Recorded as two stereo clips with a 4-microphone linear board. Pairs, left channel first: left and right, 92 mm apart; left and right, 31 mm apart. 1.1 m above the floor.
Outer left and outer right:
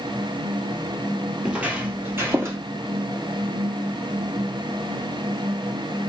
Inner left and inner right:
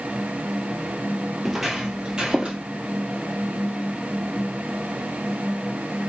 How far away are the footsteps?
About 1.1 m.